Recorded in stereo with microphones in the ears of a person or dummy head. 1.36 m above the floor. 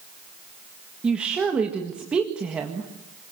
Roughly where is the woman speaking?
Centre.